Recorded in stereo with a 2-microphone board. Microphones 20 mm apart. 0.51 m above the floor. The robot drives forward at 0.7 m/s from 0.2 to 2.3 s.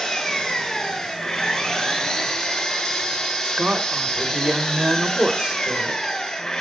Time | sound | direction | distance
0.0 | an engine running | 20° left (ahead or behind) | 8 m
3.4 | a woman speaking | 60° right (ahead or behind) | 2 m